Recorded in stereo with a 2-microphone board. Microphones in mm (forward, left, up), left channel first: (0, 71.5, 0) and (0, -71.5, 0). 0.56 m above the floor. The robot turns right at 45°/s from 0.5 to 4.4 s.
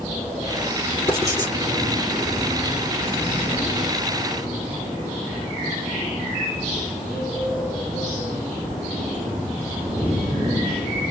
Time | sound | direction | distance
1.1 | writing | 30° left (ahead or behind) | 3.5 m